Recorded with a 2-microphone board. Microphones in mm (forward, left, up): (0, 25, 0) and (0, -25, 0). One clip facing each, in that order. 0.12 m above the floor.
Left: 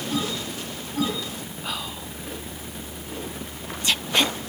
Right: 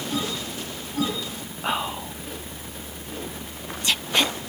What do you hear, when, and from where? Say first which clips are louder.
1.6 s whispering: right 8 dB; 30° right (ahead or behind)